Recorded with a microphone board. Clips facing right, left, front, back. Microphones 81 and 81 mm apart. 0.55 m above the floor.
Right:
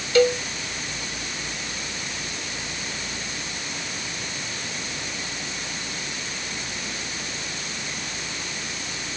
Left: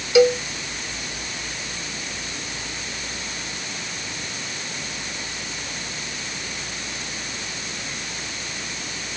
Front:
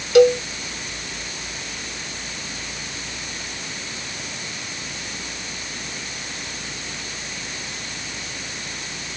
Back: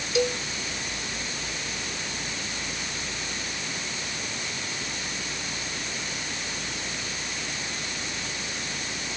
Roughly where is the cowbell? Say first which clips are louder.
Left 3 dB, front 13 dB; ahead.